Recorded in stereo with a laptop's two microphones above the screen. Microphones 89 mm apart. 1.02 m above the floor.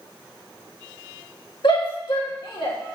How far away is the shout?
About 1.8 m.